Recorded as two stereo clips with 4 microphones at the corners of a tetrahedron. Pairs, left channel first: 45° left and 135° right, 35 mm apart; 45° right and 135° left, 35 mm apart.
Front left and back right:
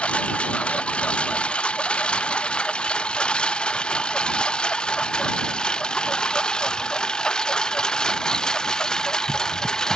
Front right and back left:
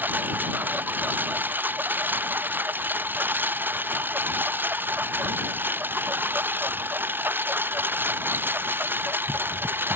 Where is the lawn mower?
105° left; by 10.0 s 120° left.